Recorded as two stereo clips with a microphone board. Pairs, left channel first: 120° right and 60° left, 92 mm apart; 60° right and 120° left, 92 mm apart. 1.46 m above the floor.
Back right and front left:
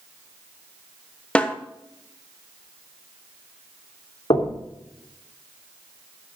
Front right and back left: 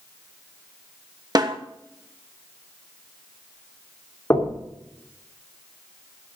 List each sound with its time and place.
1.4 s a snare drum: 165° left, 1.3 m
4.3 s knocking: 120° right, 2.5 m